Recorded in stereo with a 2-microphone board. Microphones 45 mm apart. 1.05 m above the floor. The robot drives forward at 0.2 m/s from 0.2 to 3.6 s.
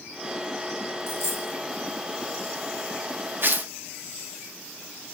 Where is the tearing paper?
50° right (ahead or behind), 1.3 m; by 3.7 s 45° right (ahead or behind), 1.3 m.